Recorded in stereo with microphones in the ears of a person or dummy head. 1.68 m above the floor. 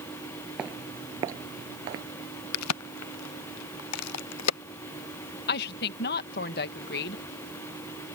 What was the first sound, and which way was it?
Footsteps, 10° right (ahead or behind).